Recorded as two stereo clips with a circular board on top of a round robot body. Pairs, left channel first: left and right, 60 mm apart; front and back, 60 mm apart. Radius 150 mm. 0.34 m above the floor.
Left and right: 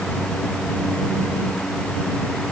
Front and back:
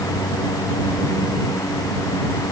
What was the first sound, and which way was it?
Only background noise.